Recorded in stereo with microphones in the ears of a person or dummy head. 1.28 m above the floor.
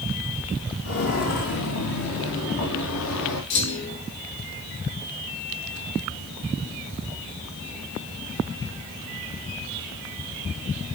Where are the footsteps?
60° left (ahead or behind), 3 m; by 3.4 s 80° left, 6.5 m.